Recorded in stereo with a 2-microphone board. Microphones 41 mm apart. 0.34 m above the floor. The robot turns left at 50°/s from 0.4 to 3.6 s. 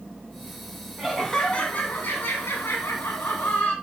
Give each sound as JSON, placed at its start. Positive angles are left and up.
{"t": 1.0, "sound": "laughter", "azimuth_deg": -170, "distance_m": 2.5}